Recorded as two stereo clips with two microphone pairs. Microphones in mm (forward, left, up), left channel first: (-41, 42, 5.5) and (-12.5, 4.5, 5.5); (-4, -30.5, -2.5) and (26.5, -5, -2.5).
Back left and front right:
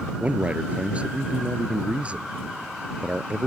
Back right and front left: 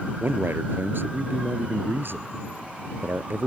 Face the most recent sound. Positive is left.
turn(degrees=10)